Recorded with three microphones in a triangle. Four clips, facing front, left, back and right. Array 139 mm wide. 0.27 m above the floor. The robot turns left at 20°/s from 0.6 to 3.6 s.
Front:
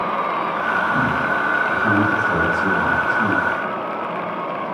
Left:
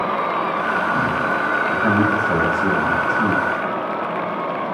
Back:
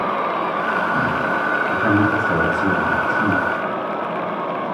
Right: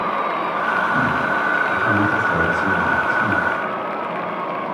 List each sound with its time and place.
1.7 s a man speaking: 145° left, 2 m; by 3.5 s 110° left, 2 m